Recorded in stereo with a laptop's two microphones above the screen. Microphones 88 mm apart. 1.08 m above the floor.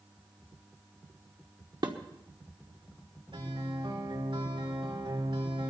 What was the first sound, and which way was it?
Dishes clattering, 55° right (ahead or behind).